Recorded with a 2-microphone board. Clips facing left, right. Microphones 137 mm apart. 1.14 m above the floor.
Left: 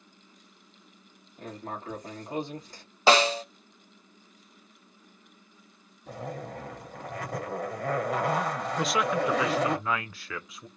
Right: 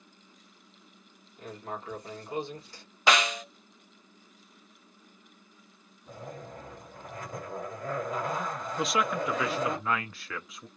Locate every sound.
1.4 s writing: 45° left (ahead or behind), 1.5 m
3.1 s a snare drum: 30° left (ahead or behind), 0.5 m
6.1 s a zipper: 70° left (ahead or behind), 1.4 m
8.8 s a man speaking: centre (ahead or behind), 0.7 m